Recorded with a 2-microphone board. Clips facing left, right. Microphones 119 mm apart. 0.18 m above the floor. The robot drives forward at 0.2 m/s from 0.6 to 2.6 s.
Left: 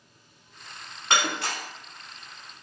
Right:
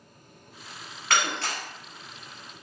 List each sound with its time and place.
1.1 s breaking glass: 25° left (ahead or behind), 0.7 m; by 1.6 s 20° left (ahead or behind), 0.8 m